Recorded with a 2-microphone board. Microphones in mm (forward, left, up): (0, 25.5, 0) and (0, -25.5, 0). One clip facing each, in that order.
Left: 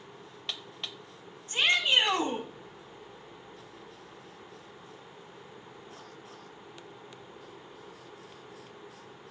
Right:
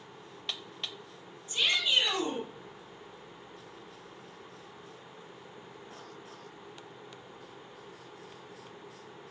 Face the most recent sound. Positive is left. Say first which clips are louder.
# left 3 dB
turn(degrees=55)  # may be behind; listen again after turning